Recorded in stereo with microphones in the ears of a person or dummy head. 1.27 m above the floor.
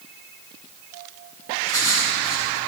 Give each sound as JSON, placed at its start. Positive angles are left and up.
{"t": 1.6, "sound": "writing", "side_deg": 20, "distance_m": 3.0}